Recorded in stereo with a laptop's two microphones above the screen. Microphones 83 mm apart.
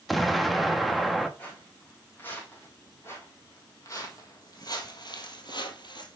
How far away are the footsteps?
About 3.5 m.